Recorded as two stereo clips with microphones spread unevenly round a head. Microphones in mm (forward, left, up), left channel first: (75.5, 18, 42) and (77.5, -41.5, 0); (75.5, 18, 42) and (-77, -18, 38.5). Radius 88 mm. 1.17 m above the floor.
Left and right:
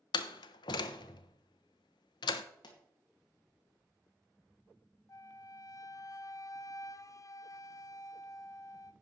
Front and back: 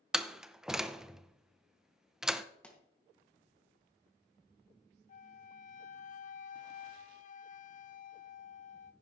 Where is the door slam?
110° left, 0.5 m.